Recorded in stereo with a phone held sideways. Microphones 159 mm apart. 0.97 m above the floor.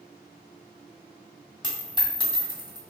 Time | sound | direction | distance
1.6 | a dropped coin | 25° left (ahead or behind) | 1.3 m